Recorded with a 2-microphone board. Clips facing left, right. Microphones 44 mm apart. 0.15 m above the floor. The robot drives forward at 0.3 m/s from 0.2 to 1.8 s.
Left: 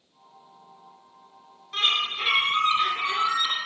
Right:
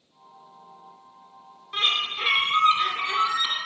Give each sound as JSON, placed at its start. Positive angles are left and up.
{"t": 1.7, "sound": "a bird", "side_deg": -20, "distance_m": 0.6}